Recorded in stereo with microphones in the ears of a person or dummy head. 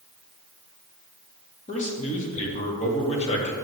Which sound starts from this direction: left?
A man speaking, at 1.7 s.